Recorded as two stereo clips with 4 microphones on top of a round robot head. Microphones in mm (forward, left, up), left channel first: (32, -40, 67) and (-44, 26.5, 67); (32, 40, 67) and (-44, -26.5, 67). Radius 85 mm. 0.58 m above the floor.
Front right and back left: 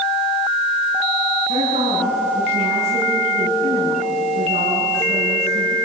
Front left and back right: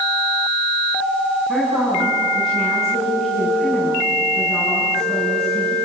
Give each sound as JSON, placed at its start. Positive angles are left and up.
{"t": 1.5, "sound": "a woman speaking", "azimuth_deg": 130, "distance_m": 6.5}